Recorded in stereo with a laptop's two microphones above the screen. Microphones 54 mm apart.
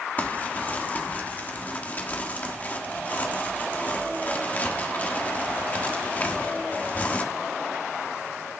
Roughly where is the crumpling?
Left.